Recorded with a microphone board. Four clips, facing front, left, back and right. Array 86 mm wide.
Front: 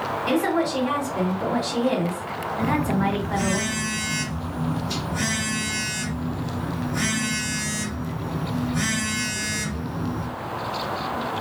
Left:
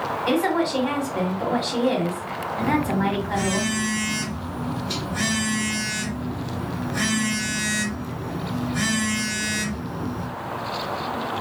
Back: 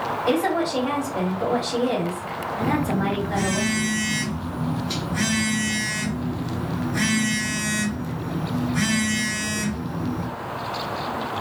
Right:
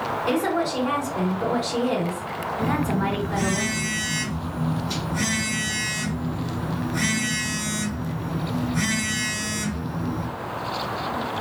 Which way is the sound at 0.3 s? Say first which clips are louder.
Left 2 dB, even; 95° left.